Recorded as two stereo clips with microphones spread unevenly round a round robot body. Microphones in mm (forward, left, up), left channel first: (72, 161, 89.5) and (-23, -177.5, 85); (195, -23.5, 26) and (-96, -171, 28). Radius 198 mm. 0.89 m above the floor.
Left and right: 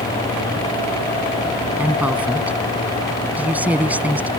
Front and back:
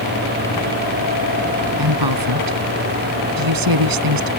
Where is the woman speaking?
170° left.